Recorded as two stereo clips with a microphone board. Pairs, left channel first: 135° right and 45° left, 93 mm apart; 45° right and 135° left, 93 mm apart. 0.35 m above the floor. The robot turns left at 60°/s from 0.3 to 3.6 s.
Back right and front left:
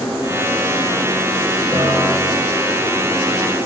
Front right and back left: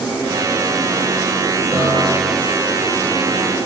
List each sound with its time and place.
1.7 s a piano: 80° left, 4.5 m; by 2.5 s 30° left, 4.5 m